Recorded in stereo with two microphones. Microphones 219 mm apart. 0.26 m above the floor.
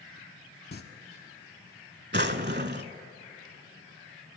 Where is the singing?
45° left (ahead or behind), 0.9 m.